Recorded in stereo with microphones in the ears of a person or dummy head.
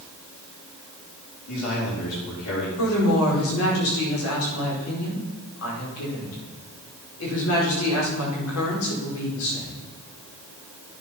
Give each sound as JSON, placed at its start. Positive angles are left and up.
{"t": 1.5, "sound": "a man speaking", "side_deg": 75, "distance_m": 5.0}
{"t": 2.8, "sound": "a woman speaking", "side_deg": 85, "distance_m": 5.0}